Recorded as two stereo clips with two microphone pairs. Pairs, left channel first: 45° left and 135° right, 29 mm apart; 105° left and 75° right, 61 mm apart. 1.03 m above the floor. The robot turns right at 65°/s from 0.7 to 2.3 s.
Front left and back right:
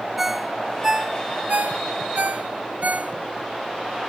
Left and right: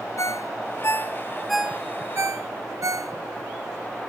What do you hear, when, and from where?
0.2 s a ringtone: 145° left, 0.6 m; by 3.1 s 110° right, 0.6 m